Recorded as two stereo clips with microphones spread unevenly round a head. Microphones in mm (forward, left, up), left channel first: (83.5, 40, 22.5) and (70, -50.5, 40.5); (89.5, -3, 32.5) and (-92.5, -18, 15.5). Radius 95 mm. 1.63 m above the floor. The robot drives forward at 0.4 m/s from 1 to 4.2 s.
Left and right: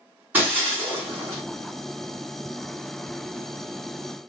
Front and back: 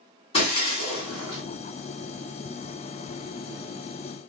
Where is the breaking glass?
40° right, 2.5 m; by 1.4 s 45° right, 2 m.